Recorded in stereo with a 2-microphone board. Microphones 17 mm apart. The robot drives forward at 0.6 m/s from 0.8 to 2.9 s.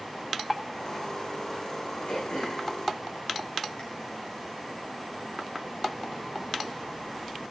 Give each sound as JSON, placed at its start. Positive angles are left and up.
{"t": 2.1, "sound": "throat clearing", "side_deg": 75, "distance_m": 5.5}